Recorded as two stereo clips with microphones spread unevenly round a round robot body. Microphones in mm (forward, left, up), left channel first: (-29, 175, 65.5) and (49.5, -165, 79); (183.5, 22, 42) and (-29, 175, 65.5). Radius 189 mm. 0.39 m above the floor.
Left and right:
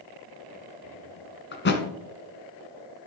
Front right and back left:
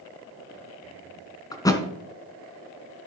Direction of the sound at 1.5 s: 40° left.